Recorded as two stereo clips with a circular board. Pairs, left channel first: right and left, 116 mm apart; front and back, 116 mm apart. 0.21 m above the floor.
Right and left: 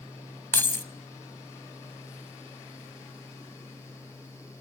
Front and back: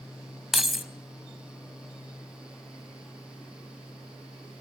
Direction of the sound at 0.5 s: 95° right.